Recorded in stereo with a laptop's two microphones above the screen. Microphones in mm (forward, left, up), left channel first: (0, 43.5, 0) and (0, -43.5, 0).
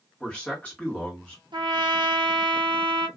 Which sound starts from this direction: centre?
A man speaking, at 0.2 s.